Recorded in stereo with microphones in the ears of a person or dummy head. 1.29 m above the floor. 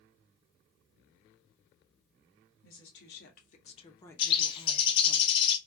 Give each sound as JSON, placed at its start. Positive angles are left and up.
{"t": 2.6, "sound": "a woman speaking", "side_deg": 65, "distance_m": 1.1}
{"t": 4.2, "sound": "a bird", "side_deg": 30, "distance_m": 0.6}